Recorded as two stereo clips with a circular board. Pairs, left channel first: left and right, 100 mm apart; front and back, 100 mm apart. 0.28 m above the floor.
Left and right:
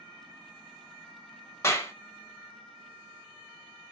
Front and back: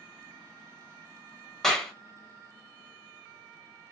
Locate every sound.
1.6 s a clap: 80° left, 0.9 m